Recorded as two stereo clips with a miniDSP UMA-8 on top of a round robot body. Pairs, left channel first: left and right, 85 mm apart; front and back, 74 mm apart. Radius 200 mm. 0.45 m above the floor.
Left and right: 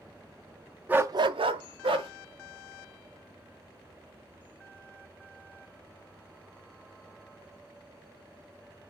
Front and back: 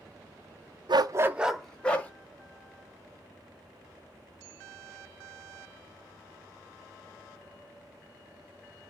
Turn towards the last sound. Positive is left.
turn(degrees=-70)